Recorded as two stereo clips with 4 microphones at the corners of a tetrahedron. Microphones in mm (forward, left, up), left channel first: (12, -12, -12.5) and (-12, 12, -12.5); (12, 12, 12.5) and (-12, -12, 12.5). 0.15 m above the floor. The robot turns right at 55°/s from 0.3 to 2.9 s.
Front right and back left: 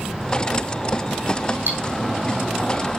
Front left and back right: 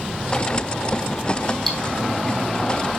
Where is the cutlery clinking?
130° left, 3 m; by 1.8 s 140° left, 3 m.